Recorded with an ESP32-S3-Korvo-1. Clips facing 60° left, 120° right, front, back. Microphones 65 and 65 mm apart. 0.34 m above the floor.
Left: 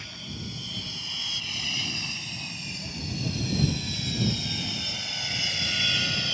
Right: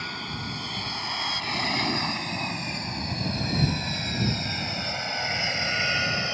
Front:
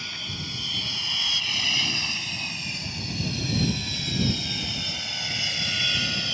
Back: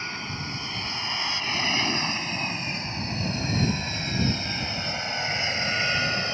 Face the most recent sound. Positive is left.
turn(degrees=-155)